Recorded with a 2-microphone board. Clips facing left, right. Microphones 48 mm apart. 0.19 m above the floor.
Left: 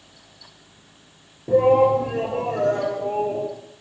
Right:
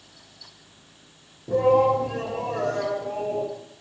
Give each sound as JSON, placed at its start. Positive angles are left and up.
{"t": 1.5, "sound": "a shout", "side_deg": 30, "distance_m": 3.5}